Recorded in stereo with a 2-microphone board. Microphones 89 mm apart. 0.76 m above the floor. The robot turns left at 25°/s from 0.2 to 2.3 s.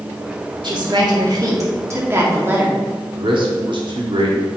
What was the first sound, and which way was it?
A woman speaking, 110° right.